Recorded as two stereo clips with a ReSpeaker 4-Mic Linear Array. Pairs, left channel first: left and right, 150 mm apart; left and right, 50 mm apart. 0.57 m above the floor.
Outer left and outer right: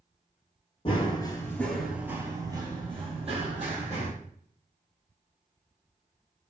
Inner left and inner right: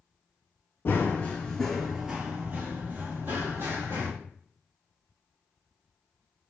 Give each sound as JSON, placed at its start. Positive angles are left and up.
{"t": 0.8, "sound": "running footsteps", "side_deg": 40, "distance_m": 0.7}